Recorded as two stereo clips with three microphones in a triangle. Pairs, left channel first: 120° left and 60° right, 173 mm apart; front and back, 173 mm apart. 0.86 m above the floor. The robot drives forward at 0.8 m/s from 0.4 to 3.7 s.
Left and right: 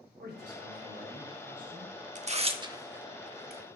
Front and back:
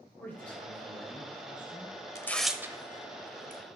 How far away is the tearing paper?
About 0.7 m.